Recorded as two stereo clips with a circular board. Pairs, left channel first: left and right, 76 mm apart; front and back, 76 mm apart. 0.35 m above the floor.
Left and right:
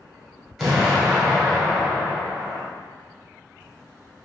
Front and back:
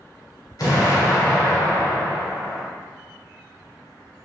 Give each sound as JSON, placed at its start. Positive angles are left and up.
{"t": 0.6, "sound": "an explosion", "azimuth_deg": 0, "distance_m": 1.1}